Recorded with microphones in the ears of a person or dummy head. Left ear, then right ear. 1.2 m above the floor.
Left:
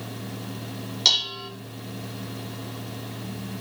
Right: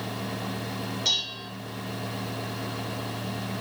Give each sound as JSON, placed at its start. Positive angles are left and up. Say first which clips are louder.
{"t": 1.1, "sound": "dishes clattering", "louder": "left 6 dB", "side_deg": 40, "distance_m": 2.5}